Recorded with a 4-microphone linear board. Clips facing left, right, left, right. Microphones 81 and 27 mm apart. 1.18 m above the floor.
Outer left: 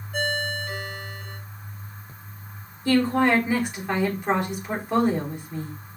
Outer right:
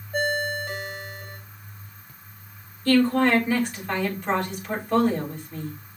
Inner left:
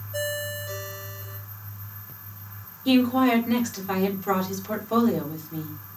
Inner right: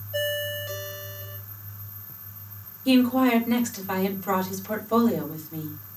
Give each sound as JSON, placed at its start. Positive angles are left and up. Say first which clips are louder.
{"t": 0.1, "sound": "a ringtone", "louder": "outer right 2 dB, inner right 2 dB", "side_deg": -25, "distance_m": 3.0}
{"t": 2.9, "sound": "a woman speaking", "louder": "outer right 1 dB, even", "side_deg": 15, "distance_m": 4.0}